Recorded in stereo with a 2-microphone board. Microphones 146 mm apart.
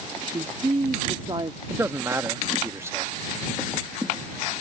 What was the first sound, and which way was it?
A woman speaking, 35° right (ahead or behind).